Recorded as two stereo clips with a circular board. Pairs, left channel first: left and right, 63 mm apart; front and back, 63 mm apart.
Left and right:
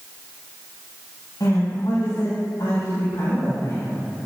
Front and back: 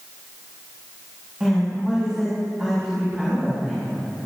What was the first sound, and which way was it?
A woman speaking, 105° left.